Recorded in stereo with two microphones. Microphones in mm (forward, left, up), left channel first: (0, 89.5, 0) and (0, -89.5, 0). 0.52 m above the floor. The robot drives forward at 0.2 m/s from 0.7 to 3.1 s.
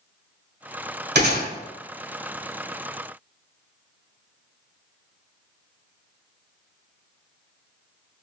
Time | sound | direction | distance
1.1 | a gunshot | 70° right (ahead or behind) | 1.5 m